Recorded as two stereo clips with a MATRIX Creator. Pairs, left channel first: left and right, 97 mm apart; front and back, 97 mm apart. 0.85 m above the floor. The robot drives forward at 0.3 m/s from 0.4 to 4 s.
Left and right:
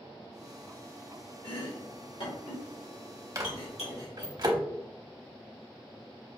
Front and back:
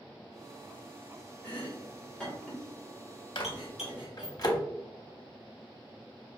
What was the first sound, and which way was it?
Chopping, 70° left.